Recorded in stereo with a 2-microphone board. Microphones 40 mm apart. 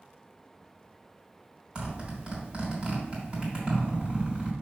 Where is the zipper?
30° right (ahead or behind), 3 m.